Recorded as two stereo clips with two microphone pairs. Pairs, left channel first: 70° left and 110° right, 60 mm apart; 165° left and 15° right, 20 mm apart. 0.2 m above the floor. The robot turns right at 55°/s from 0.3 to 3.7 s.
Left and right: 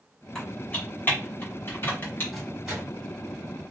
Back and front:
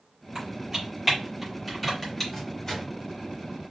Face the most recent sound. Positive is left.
turn(degrees=-120)